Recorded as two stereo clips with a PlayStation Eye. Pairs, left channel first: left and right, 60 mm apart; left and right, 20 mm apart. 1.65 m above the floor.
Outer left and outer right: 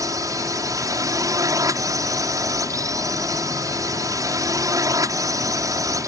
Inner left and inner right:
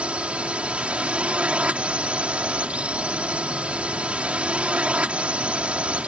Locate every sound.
0.0 s a drone: 75° right (ahead or behind)